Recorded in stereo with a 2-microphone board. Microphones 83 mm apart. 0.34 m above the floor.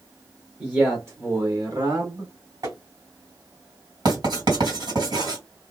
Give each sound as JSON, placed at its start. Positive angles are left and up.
{"t": 0.6, "sound": "a man speaking", "side_deg": -20, "distance_m": 1.0}
{"t": 2.6, "sound": "tapping", "side_deg": -45, "distance_m": 1.8}
{"t": 4.0, "sound": "writing", "side_deg": -55, "distance_m": 2.0}